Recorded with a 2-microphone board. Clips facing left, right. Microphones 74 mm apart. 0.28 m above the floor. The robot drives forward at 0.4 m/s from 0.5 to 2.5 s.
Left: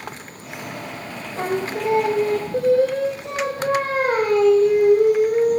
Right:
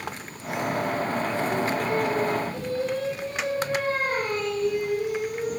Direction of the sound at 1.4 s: 90° left.